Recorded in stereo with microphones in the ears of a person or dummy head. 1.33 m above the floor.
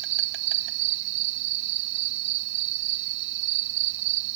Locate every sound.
0.0 s an insect: 70° right (ahead or behind)